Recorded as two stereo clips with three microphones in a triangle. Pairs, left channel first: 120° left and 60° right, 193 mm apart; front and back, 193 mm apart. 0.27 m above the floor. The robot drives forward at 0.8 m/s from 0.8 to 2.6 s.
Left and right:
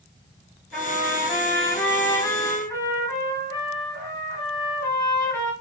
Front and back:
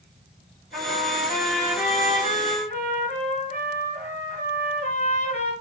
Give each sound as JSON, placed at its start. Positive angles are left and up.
{"t": 0.7, "sound": "a trumpet", "azimuth_deg": 30, "distance_m": 4.0}